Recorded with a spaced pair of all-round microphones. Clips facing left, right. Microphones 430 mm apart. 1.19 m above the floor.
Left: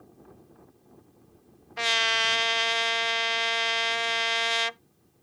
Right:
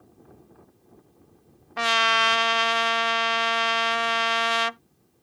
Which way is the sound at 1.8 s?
80° right.